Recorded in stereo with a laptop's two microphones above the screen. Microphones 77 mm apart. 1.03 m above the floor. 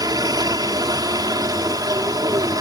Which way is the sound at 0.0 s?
55° right (ahead or behind).